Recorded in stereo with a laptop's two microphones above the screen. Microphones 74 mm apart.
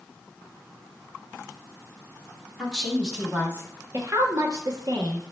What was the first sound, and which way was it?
A woman speaking, 5° right (ahead or behind).